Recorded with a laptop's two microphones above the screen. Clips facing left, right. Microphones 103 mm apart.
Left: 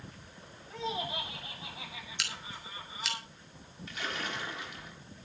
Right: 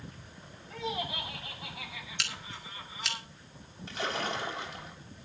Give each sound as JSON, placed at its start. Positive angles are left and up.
{"t": 0.7, "sound": "laughter", "side_deg": 30, "distance_m": 9.5}
{"t": 2.2, "sound": "scissors", "side_deg": 0, "distance_m": 3.5}
{"t": 3.9, "sound": "a splash", "side_deg": -35, "distance_m": 3.5}